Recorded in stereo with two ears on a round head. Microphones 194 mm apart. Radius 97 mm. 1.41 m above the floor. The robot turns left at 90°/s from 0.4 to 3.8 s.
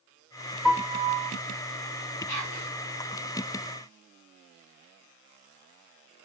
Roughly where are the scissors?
No scissors in this recording.